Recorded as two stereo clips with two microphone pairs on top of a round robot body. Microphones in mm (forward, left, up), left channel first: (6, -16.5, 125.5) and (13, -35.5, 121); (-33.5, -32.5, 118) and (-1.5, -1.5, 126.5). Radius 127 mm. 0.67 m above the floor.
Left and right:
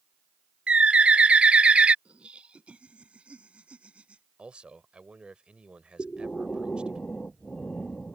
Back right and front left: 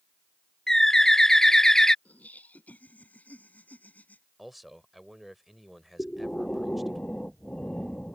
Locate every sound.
0.7 s a bird: 60° right
2.0 s laughter: 80° right
4.4 s a man speaking: 45° right
6.0 s breathing: 145° left